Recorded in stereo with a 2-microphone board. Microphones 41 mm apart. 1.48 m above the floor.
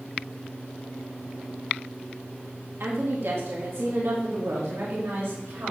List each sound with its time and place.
2.8 s a woman speaking: 65° right (ahead or behind), 2 m; by 5.7 s 75° right (ahead or behind), 3 m